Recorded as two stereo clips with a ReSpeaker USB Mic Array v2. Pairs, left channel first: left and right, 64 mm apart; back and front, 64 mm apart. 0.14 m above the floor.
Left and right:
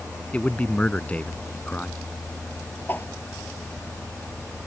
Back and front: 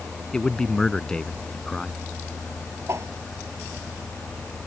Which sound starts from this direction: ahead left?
A whoosh, at 2.9 s.